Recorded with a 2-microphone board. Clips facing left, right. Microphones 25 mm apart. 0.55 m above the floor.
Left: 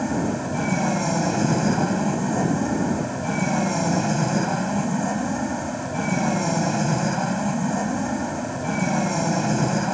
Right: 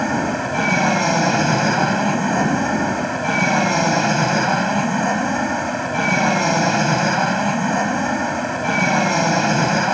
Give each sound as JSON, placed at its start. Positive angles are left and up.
{"t": 0.0, "sound": "an aircraft", "side_deg": -55}